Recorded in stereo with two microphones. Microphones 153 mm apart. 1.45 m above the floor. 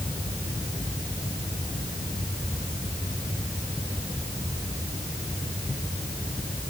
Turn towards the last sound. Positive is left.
No sound to turn to.